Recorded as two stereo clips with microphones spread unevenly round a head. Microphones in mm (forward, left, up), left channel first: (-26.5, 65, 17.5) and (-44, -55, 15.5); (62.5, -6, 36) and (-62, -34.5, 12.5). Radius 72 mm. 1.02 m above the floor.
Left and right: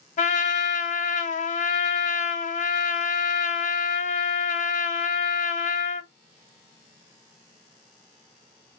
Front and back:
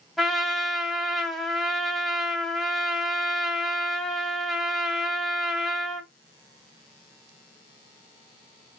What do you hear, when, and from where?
0.2 s a trumpet: 105° left, 0.8 m